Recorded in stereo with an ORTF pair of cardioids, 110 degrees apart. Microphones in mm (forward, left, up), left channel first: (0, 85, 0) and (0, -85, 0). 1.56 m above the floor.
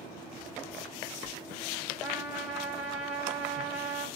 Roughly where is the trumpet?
Ahead.